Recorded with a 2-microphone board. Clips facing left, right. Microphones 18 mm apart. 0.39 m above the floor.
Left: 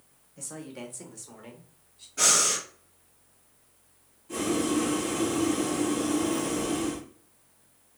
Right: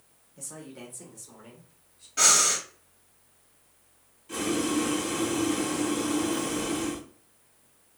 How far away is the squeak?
No squeak in this recording.